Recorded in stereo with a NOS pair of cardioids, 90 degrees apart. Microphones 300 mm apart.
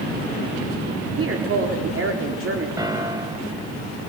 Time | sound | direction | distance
1.2 | a woman speaking | 45° right | 4 m
2.8 | a piano | 15° right | 2 m